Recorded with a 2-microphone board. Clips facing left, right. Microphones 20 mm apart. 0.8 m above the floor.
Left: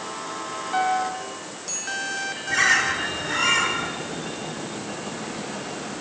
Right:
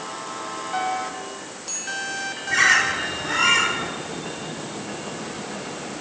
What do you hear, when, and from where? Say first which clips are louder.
0.7 s a piano: left 4 dB; 10° left (ahead or behind), 2.5 m
2.5 s a bird: right 2 dB; 10° right (ahead or behind), 2 m